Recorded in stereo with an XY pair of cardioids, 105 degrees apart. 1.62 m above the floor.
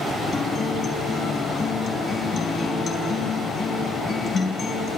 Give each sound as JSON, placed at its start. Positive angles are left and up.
{"t": 0.3, "sound": "a guitar", "azimuth_deg": 55, "distance_m": 4.5}